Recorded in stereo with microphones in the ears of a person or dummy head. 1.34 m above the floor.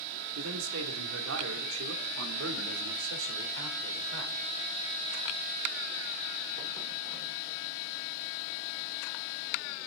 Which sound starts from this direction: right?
A man speaking, at 0.3 s.